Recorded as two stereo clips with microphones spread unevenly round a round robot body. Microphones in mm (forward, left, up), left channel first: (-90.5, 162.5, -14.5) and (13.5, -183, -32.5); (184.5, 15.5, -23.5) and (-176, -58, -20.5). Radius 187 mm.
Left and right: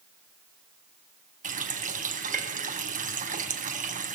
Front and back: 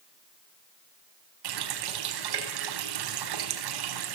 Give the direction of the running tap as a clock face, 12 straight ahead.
5 o'clock.